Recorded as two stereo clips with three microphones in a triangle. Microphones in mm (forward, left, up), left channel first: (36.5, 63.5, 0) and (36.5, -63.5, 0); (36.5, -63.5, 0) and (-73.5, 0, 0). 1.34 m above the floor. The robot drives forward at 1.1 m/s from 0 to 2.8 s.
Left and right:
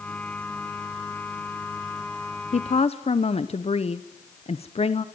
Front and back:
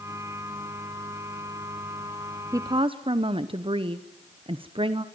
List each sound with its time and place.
2.5 s a woman speaking: 85° left, 0.8 m; by 5.0 s 115° left, 0.8 m